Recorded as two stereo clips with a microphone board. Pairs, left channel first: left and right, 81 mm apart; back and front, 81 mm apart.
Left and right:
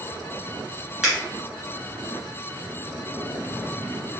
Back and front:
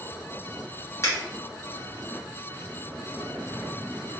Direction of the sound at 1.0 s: 165° right.